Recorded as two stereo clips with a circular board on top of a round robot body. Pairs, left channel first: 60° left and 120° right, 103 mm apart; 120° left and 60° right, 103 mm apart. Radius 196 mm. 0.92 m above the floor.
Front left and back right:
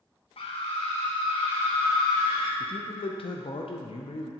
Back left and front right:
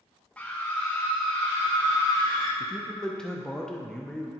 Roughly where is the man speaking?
Ahead left.